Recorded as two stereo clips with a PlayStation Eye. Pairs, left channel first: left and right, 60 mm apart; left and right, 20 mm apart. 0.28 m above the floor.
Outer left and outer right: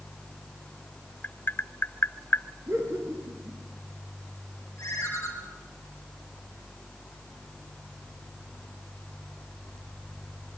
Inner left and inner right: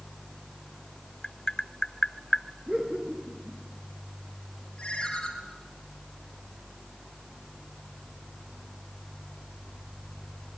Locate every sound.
1.2 s tapping: 35° left (ahead or behind), 0.6 m
2.7 s laughter: 45° right (ahead or behind), 6.5 m
4.8 s a ringtone: 45° left (ahead or behind), 4 m